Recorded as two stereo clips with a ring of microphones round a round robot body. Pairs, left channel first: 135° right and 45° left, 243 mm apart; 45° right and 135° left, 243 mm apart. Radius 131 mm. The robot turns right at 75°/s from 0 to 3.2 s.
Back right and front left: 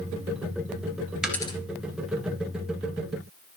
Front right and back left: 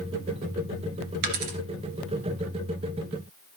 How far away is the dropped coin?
About 1.9 m.